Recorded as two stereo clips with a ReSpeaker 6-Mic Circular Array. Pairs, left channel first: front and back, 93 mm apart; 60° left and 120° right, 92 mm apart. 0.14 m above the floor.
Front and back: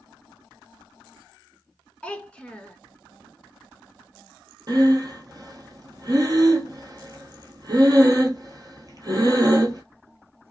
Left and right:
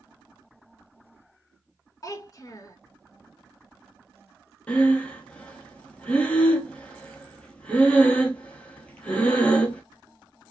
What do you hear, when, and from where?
2.0 s a child speaking: 70° left, 0.7 m
4.7 s breathing: 135° left, 0.7 m